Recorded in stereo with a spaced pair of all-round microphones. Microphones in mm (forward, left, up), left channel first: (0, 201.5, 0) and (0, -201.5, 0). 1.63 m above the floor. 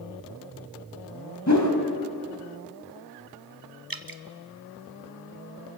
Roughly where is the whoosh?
Left.